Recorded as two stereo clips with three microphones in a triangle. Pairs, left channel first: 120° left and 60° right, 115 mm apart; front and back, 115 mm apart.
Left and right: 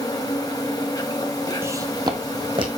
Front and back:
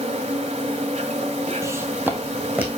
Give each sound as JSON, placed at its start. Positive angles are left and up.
{"t": 0.0, "sound": "an insect", "azimuth_deg": 175, "distance_m": 1.5}
{"t": 1.6, "sound": "footsteps", "azimuth_deg": -120, "distance_m": 0.9}